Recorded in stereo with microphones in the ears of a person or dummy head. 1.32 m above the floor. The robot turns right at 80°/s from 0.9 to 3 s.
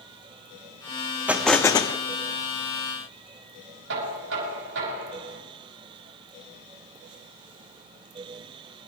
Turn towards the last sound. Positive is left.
turn(degrees=-65)  # may be behind; listen again after turning